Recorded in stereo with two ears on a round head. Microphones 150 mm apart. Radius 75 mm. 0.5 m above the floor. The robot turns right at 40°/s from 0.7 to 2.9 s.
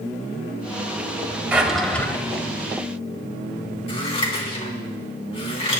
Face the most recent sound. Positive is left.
turn(degrees=35)  # may be behind; listen again after turning